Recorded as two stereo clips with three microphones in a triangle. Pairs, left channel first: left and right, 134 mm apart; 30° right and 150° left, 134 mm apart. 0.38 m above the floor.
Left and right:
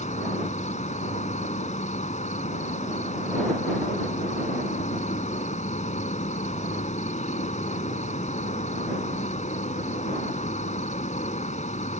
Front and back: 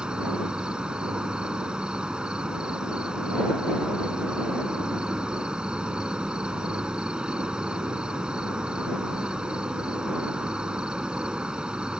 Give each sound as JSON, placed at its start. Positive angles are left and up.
{"t": 0.0, "sound": "an insect", "azimuth_deg": 70}